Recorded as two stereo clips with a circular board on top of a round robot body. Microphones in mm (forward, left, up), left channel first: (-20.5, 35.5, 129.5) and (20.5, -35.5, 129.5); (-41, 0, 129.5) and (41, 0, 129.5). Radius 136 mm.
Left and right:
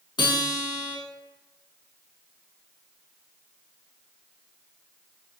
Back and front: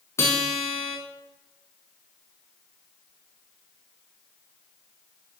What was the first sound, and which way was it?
A guitar, 125° left.